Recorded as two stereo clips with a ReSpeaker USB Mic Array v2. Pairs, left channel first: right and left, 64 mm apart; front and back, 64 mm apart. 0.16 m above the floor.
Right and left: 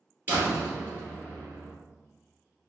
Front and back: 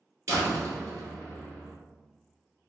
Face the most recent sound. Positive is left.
turn(degrees=145)